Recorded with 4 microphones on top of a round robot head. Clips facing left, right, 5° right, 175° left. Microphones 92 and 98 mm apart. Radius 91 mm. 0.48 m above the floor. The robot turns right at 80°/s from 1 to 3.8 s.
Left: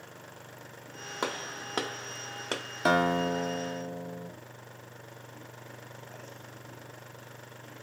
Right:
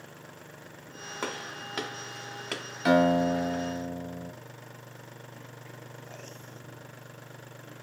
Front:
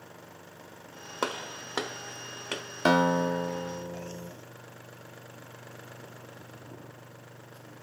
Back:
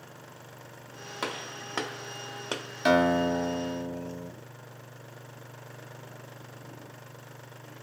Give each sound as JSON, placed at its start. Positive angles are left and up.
{"t": 1.2, "sound": "a gunshot", "azimuth_deg": 30, "distance_m": 0.5}
{"t": 2.9, "sound": "a guitar", "azimuth_deg": 35, "distance_m": 0.6}